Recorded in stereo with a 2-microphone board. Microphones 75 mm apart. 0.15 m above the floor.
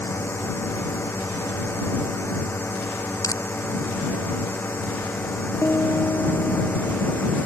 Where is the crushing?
50° left (ahead or behind).